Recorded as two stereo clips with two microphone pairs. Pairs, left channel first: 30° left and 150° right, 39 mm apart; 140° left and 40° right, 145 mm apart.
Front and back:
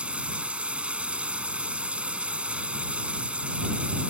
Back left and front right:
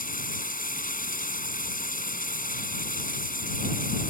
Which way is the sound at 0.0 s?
150° left.